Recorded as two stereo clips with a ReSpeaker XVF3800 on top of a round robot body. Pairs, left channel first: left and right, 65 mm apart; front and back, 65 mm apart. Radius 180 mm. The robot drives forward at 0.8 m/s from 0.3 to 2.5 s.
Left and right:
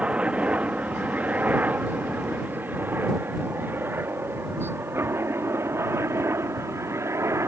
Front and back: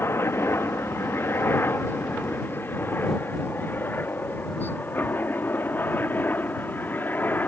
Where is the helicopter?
25° right; by 7.5 s 55° right.